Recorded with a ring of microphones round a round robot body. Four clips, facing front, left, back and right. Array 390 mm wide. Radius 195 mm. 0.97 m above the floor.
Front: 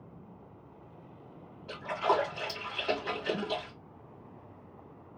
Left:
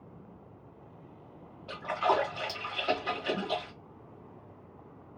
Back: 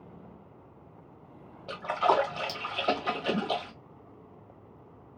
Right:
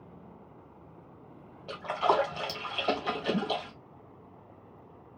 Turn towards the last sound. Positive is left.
turn(degrees=-155)